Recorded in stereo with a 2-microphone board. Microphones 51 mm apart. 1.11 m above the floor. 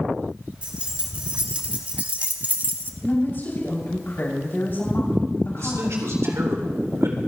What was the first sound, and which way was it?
Keys jangling, 25° right (ahead or behind).